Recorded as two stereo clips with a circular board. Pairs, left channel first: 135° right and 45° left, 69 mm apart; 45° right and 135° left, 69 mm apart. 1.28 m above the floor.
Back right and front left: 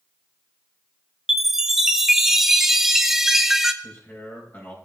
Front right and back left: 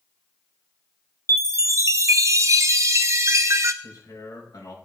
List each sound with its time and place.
1.3 s a chime: 125° left, 0.6 m
3.8 s a man speaking: 75° right, 4 m